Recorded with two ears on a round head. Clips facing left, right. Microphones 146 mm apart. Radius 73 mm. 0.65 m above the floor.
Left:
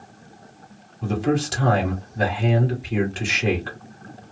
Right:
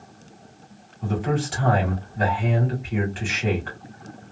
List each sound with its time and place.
1.0 s a man speaking: 50° left (ahead or behind), 1.8 m